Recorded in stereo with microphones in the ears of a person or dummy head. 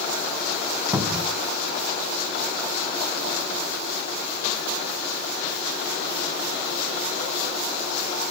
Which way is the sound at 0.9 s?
15° right (ahead or behind).